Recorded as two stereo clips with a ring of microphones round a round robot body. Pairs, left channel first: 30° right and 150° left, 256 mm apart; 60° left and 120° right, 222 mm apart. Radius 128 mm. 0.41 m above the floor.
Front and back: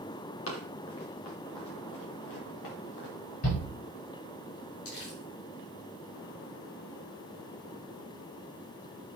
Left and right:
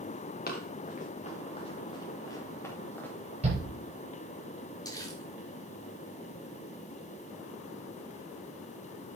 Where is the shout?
60° right, 8.5 m.